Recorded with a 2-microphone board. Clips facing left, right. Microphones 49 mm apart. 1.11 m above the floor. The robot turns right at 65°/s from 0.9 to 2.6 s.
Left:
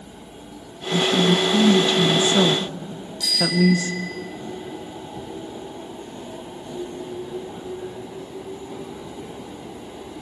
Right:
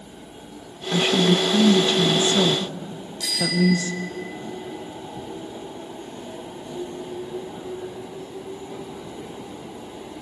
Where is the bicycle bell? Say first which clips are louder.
Left 2 dB; 15° right (ahead or behind), 3.5 m.